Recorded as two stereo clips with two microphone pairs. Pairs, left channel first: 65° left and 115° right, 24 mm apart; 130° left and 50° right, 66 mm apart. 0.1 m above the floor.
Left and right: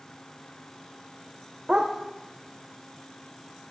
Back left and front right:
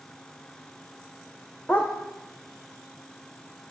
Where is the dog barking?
165° right, 2 m.